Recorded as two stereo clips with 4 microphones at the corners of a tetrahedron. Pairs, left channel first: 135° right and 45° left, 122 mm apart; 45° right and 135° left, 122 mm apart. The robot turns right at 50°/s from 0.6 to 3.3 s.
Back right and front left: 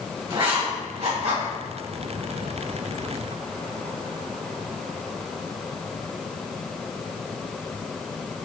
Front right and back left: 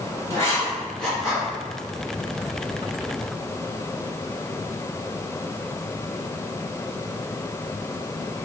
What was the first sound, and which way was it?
Writing, 15° left.